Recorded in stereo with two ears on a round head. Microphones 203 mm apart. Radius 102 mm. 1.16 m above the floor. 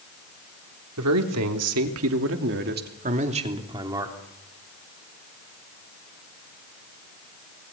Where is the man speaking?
85° right, 3.5 m; by 4.2 s 15° right (ahead or behind), 3.5 m.